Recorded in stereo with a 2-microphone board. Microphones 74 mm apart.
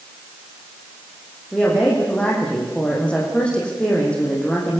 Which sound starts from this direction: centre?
A woman speaking, at 1.5 s.